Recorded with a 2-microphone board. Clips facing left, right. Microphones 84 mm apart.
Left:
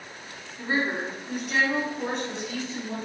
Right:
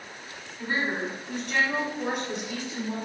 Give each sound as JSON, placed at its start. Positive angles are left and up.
{"t": 0.6, "sound": "a woman speaking", "side_deg": 30, "distance_m": 1.8}